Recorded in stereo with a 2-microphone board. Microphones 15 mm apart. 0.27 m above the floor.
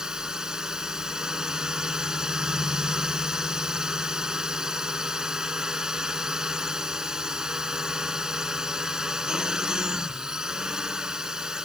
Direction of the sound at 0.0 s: 45° right (ahead or behind).